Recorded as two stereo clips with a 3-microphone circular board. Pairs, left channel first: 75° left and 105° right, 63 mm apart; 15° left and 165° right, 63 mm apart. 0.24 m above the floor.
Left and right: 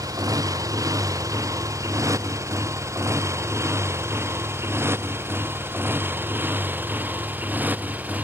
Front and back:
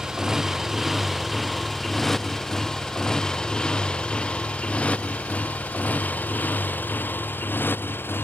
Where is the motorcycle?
85° right; by 8.2 s 40° right.